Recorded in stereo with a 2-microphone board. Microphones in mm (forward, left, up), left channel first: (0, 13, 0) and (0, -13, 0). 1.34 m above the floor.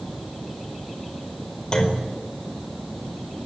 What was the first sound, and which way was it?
A clunk, 35° left (ahead or behind).